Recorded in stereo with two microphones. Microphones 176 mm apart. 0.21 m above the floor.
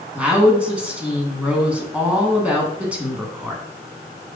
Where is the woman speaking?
5° right (ahead or behind), 2 m.